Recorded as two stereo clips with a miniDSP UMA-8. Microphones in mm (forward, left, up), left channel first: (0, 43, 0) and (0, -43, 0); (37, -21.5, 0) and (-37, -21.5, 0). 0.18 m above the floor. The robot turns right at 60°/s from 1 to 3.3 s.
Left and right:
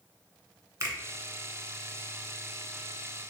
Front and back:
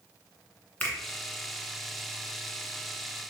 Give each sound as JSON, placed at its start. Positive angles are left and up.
{"t": 0.8, "sound": "a finger snap", "azimuth_deg": -60, "distance_m": 1.3}